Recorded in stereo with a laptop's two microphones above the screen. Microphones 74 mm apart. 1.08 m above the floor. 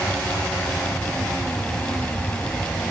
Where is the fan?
10° left (ahead or behind), 1.8 m.